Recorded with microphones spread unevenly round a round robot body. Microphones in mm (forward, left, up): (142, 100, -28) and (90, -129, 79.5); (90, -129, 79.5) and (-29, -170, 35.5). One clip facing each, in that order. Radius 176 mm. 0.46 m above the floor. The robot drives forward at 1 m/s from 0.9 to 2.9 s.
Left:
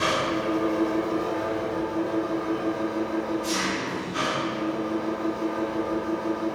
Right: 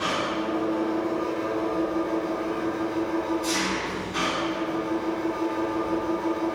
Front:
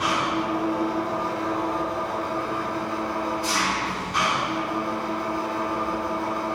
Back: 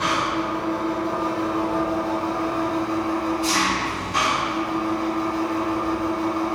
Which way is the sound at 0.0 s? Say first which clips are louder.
Left 2 dB, back 1 dB; 115° left.